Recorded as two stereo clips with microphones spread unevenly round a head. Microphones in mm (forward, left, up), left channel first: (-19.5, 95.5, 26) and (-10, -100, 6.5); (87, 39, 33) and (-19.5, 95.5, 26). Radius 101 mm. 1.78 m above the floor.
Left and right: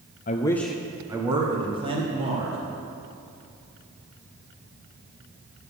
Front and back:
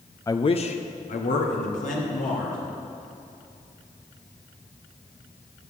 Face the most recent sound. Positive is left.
turn(degrees=-25)